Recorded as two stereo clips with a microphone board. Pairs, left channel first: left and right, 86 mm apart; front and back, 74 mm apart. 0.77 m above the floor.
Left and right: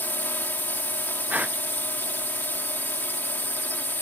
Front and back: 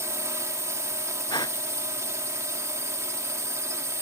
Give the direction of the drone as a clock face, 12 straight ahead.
7 o'clock.